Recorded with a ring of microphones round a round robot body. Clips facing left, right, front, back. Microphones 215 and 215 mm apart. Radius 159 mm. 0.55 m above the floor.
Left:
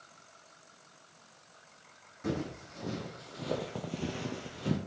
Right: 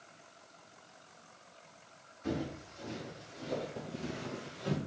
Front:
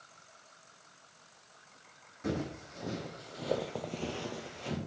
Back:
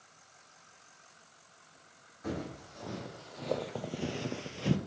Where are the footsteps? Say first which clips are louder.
Left 1 dB, front 3 dB; 60° left, 2 m; by 4.8 s 150° left, 1.0 m.